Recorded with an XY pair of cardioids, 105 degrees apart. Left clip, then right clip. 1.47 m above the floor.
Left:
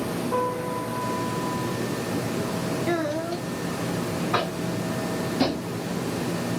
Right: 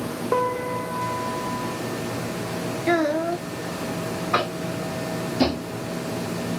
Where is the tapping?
30° right, 1.1 m.